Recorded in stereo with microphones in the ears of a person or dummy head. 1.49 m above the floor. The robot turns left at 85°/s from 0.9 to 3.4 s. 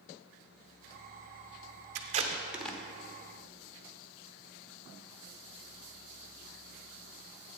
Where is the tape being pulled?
50° right (ahead or behind), 0.7 m; by 2.8 s 15° left (ahead or behind), 0.7 m.